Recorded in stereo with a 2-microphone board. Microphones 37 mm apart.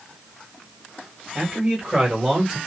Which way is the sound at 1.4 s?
30° right (ahead or behind).